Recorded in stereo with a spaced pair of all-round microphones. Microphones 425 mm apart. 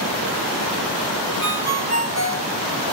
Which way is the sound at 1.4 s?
35° left (ahead or behind).